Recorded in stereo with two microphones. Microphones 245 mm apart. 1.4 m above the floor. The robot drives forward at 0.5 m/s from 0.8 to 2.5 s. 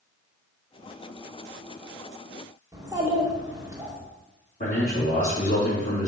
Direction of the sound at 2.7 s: 15° right (ahead or behind).